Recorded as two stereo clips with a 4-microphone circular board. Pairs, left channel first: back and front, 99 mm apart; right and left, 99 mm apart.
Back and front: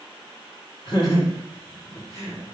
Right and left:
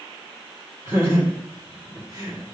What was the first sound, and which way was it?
Laughter, 155° left.